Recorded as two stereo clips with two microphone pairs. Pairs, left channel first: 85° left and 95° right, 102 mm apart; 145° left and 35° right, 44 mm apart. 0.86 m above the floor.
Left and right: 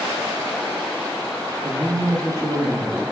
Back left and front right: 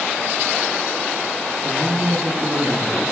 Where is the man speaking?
80° right, 0.9 m; by 3.0 s 40° right, 1.4 m.